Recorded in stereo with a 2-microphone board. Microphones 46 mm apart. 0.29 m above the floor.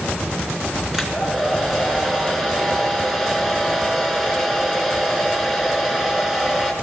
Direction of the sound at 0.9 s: 10° right (ahead or behind).